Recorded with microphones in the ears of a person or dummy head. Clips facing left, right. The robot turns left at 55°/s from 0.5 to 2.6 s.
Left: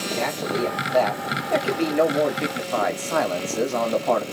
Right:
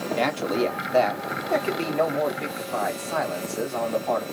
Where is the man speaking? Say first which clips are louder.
Right 1 dB; 120° right, 1.5 m; by 4.2 s 125° left, 1.5 m.